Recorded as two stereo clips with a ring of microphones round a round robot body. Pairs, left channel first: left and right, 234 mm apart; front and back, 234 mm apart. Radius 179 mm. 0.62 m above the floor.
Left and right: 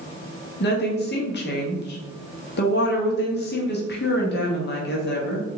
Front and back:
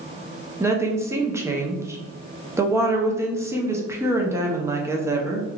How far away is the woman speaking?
About 0.9 m.